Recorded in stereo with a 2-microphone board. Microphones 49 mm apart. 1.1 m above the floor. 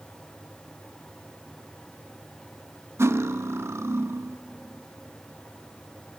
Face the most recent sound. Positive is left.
turn(degrees=-60)  # may be behind; listen again after turning